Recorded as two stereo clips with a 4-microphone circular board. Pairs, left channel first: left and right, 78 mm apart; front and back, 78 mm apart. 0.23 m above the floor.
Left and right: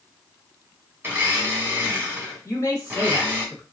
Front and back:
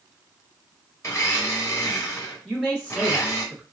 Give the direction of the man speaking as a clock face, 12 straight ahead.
9 o'clock.